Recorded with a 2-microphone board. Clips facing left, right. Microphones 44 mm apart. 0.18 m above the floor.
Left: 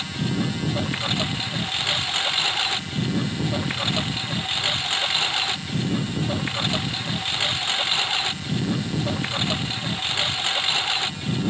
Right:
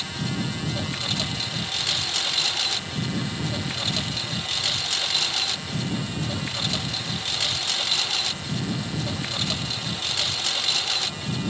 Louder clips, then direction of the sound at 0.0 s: Left 3 dB; 25° left (ahead or behind).